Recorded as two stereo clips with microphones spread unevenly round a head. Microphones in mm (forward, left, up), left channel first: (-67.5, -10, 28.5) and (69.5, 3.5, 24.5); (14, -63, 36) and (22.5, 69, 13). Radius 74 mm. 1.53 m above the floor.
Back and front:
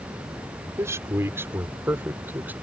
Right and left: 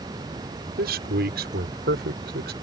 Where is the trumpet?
I don't hear a trumpet.